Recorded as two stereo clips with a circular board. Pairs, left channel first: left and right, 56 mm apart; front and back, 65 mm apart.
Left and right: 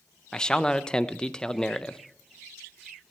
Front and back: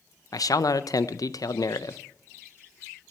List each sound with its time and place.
0.3 s a man speaking: 15° left, 0.5 m